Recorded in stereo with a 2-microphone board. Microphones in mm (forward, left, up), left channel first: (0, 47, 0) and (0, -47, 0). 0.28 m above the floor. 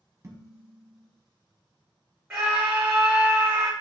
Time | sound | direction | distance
0.2 | dishes clattering | 35° right (ahead or behind) | 1.2 m
2.3 | a scream | 20° right (ahead or behind) | 1.2 m